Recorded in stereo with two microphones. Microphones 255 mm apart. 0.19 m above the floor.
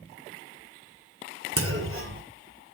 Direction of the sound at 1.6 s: 55° right (ahead or behind).